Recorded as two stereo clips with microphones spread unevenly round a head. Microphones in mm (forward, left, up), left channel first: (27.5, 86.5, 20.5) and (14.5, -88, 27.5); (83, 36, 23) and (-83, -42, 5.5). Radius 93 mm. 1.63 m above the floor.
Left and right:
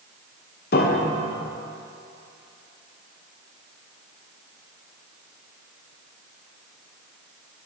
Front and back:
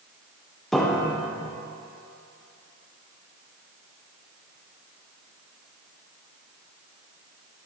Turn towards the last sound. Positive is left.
turn(degrees=110)